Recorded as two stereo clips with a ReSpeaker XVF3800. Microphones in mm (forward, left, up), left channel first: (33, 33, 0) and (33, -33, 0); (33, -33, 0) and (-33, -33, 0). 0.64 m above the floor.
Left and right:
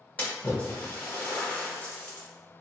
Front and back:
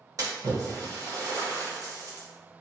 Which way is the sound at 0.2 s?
155° left.